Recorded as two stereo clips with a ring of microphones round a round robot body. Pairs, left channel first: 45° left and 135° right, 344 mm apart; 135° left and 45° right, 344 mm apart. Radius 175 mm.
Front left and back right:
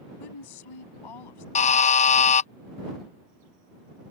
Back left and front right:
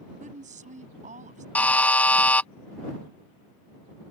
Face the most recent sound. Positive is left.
turn(degrees=60)